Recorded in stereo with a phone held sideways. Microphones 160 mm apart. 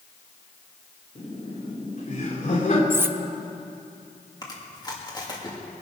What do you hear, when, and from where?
1.1 s laughter: 50° left (ahead or behind), 3 m
2.9 s cutlery clinking: 15° right (ahead or behind), 0.6 m
4.4 s chewing: 25° left (ahead or behind), 2 m